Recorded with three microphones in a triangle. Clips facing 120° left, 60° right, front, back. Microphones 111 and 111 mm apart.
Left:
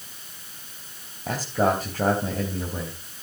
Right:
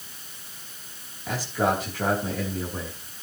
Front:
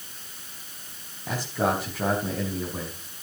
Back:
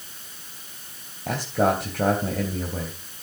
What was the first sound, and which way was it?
A man speaking, 165° left.